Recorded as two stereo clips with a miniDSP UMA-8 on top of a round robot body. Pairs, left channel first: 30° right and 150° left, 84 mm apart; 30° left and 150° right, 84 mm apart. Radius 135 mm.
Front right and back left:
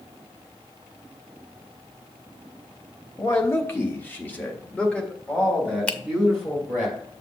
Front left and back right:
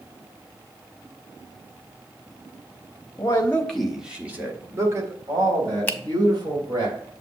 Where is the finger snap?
15° left, 0.9 m.